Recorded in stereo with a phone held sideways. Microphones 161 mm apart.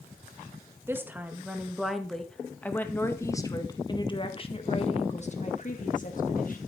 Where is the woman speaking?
15° right (ahead or behind), 2.5 m; by 6.6 s 60° left (ahead or behind), 2.5 m.